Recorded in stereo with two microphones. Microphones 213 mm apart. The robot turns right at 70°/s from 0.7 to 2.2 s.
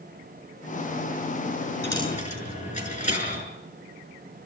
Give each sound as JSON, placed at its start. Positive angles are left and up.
{"t": 1.8, "sound": "a dropped coin", "side_deg": 10, "distance_m": 7.0}